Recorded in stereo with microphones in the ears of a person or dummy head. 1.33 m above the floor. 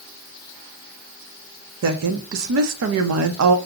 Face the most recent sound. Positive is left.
turn(degrees=-70)  # may be behind; listen again after turning